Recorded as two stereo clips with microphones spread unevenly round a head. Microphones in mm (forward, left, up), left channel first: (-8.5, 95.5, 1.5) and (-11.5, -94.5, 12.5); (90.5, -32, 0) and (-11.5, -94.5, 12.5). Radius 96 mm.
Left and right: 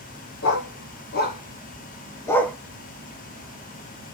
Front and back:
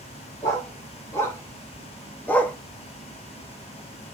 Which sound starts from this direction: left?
A dog barking, at 0.4 s.